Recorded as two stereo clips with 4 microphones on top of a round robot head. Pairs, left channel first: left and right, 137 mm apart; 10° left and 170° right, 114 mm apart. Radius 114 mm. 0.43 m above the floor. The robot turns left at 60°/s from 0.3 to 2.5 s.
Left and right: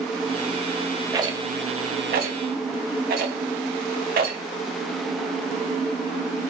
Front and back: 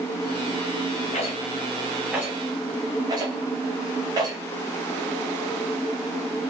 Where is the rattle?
20° right, 0.8 m; by 4.4 s 105° right, 0.8 m.